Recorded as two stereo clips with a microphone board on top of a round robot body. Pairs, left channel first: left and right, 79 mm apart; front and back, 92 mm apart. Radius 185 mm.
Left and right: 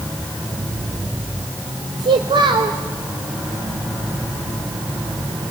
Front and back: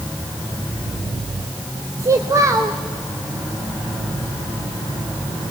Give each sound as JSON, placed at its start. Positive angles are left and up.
{"t": 2.0, "sound": "a child speaking", "azimuth_deg": -120, "distance_m": 0.7}